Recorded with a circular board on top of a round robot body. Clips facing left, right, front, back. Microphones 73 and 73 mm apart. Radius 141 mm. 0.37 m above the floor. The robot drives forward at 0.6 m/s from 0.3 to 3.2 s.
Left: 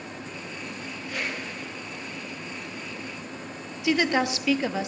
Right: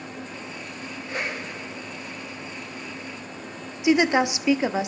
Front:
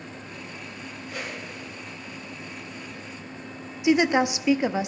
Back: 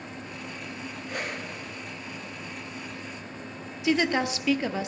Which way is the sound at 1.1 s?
150° right.